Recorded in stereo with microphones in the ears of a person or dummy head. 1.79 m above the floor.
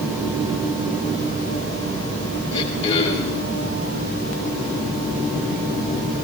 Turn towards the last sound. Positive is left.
turn(degrees=35)  # may be behind; listen again after turning